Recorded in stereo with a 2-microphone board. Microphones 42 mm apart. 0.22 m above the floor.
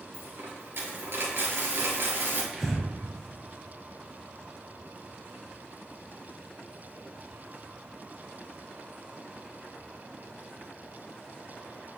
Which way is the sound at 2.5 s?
5° right (ahead or behind).